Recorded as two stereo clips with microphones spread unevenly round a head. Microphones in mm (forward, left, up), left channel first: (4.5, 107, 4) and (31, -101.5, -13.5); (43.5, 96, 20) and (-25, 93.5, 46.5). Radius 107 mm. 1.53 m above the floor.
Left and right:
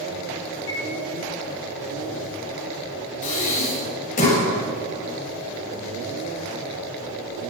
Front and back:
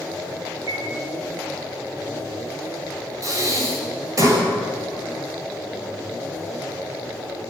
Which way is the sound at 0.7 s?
170° left.